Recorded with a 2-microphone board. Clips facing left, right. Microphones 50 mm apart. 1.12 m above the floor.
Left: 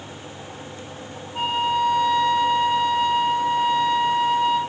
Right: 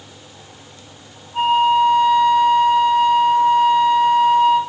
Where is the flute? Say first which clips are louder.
Right 8 dB; 30° right (ahead or behind), 4 m.